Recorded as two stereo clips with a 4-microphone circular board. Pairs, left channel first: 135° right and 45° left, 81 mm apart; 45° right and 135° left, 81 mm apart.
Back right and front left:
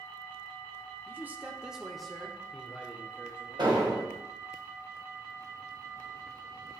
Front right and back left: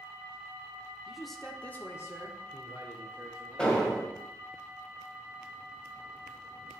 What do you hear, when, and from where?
1.1 s a man speaking: 60° left, 0.8 m; by 3.7 s 70° right, 1.6 m
3.6 s an explosion: 30° left, 1.7 m